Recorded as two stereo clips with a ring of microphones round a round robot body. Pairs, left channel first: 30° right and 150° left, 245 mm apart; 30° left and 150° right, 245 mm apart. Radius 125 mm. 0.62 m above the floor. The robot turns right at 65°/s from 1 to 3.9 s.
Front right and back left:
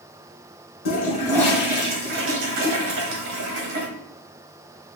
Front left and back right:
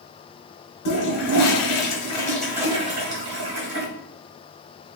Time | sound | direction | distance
0.8 | a toilet flushing | 25° left | 1.4 m